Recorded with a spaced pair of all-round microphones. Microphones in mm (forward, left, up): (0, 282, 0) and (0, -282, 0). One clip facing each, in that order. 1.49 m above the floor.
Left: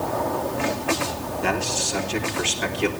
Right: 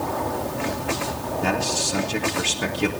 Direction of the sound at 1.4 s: 60° right (ahead or behind).